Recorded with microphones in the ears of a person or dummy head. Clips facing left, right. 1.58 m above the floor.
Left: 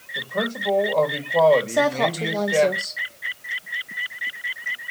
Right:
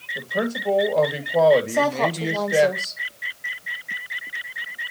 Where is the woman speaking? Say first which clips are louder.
Left 1 dB; 15° left (ahead or behind), 1.5 m.